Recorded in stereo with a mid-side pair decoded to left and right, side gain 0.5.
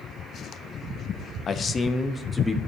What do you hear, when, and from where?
1.5 s a man speaking: 50° left, 0.7 m; by 2.6 s 15° left, 1.2 m